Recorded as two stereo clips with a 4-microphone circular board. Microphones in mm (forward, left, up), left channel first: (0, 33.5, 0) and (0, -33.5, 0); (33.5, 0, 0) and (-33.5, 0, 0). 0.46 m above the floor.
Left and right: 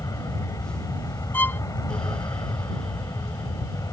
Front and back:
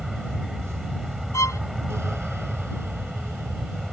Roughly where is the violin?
Ahead left.